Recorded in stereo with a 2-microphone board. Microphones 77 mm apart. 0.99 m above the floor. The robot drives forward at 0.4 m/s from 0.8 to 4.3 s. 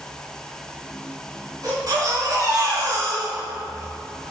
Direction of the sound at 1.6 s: 50° right (ahead or behind).